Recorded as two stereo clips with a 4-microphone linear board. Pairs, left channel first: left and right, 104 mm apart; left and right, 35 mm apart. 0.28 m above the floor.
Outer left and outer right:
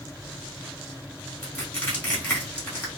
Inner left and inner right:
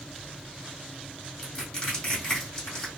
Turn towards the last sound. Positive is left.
turn(degrees=15)  # may be behind; listen again after turning